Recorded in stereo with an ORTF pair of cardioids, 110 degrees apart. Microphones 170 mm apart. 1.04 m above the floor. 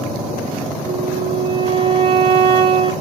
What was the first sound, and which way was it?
A flute, 30° right.